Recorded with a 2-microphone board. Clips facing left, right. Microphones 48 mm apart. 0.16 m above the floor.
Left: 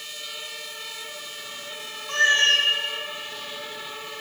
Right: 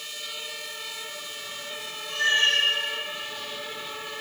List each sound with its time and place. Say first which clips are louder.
2.1 s a cat meowing: left 3 dB; 65° left (ahead or behind), 1.4 m